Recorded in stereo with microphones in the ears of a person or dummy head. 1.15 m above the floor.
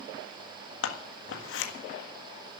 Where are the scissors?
75° left (ahead or behind), 1.7 m.